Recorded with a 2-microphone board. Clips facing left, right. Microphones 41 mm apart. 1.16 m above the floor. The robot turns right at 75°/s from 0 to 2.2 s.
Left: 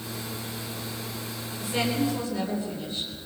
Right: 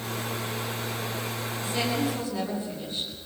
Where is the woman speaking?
160° left, 10 m; by 3.1 s 155° right, 10 m.